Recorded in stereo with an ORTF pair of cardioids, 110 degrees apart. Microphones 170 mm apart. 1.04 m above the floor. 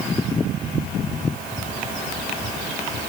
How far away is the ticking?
No ticking in this recording.